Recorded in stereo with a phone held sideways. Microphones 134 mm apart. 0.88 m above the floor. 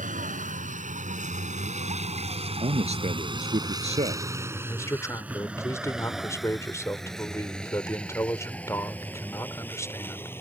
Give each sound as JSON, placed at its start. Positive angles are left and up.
{"t": 0.0, "sound": "a vehicle", "side_deg": -85}
{"t": 2.6, "sound": "a man speaking", "side_deg": -55}
{"t": 4.7, "sound": "a man speaking", "side_deg": 20}